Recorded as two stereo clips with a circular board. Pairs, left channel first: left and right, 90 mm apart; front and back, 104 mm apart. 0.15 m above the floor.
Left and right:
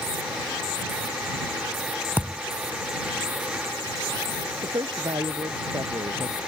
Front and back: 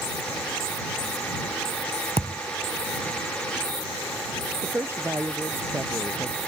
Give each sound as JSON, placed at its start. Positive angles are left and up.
{"t": 2.2, "sound": "a thud", "azimuth_deg": -160}
{"t": 4.6, "sound": "a woman speaking", "azimuth_deg": -115}